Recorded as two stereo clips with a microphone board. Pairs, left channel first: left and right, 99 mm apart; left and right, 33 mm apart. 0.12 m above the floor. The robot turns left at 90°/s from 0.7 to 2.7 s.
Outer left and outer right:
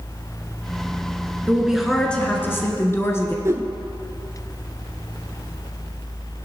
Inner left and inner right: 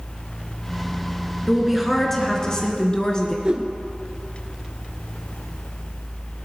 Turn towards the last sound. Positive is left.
turn(degrees=-30)  # may be behind; listen again after turning